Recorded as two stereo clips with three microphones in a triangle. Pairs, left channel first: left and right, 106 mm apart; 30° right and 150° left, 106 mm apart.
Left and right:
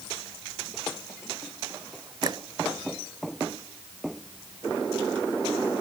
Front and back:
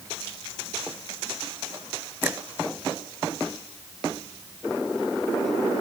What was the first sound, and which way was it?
A finger snap, 140° right.